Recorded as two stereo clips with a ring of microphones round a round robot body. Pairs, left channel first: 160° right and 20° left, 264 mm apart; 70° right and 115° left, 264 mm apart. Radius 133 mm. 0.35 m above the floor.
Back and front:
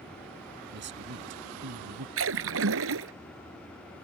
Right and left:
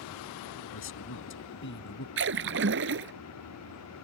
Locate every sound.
0.7 s a man speaking: 30° right; by 2.1 s 15° right
2.2 s a splash: 65° left